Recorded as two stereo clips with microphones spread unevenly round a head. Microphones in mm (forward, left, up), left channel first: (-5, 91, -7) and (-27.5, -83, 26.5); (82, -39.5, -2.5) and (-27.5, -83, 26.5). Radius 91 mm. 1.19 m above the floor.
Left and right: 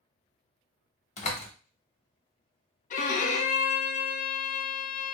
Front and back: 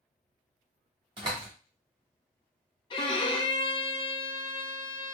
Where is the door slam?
135° left, 1.1 m.